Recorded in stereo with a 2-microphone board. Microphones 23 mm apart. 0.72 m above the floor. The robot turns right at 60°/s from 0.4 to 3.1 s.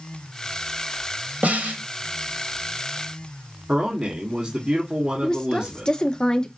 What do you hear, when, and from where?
1.4 s a snare drum: 75° right (ahead or behind), 1.1 m; by 1.8 s 70° right (ahead or behind), 1.1 m
3.7 s a man speaking: 45° right (ahead or behind), 1.9 m
5.2 s a woman speaking: 40° left (ahead or behind), 1.0 m